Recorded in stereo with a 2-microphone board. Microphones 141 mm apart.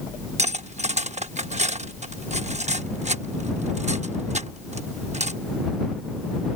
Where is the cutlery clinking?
50° right (ahead or behind).